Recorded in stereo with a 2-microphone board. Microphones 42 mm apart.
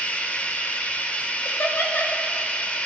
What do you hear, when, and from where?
0.0 s running water: 35° left (ahead or behind), 0.7 m
1.4 s laughter: 65° left (ahead or behind), 1.7 m